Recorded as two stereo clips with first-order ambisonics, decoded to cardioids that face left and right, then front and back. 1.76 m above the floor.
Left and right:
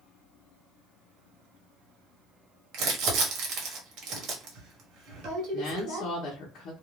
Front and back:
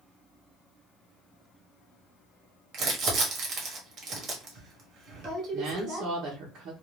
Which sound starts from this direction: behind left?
A woman speaking, at 5.5 s.